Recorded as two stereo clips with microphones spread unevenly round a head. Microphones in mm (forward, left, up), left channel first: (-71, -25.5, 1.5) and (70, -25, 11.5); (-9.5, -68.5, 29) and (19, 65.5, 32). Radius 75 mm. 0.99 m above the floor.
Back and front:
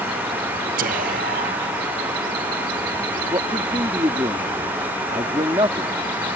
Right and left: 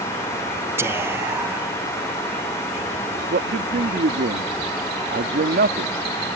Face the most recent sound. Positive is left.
turn(degrees=65)